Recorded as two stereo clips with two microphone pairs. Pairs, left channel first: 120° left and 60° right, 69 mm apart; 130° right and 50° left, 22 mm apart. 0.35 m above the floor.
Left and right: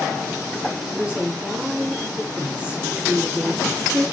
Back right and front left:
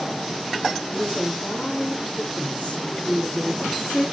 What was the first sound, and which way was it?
A woman speaking, 125° right.